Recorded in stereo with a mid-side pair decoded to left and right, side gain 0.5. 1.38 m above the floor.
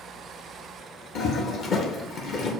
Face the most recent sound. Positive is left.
turn(degrees=55)